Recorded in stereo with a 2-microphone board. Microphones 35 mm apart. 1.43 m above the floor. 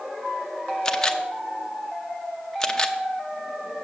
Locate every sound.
0.8 s a camera shutter: 15° left (ahead or behind), 0.7 m